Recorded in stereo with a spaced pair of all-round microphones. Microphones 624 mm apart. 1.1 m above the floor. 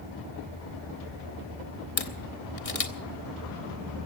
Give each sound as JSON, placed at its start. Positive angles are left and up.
{"t": 2.0, "sound": "a camera shutter", "side_deg": 65, "distance_m": 1.1}